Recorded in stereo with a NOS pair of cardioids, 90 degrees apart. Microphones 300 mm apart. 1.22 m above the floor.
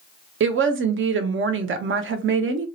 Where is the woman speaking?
40° right, 0.7 m.